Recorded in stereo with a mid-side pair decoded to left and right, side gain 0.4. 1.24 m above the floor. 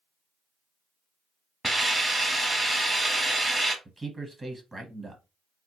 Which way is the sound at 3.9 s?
20° right.